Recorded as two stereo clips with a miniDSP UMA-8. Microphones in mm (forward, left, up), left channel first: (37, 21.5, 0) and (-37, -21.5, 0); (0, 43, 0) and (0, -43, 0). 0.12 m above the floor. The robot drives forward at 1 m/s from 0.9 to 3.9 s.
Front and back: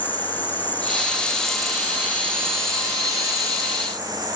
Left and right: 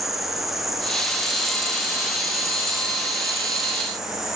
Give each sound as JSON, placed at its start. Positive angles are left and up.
{"t": 0.0, "sound": "an insect", "azimuth_deg": -5, "distance_m": 1.6}